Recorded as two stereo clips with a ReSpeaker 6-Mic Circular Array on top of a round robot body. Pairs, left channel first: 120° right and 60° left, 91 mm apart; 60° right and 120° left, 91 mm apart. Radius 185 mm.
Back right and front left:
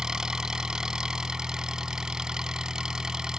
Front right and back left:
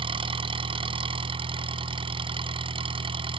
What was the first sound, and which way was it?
An engine running, 145° left.